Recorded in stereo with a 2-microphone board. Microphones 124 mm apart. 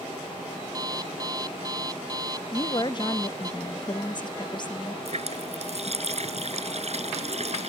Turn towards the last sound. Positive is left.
turn(degrees=-55)  # may be behind; listen again after turning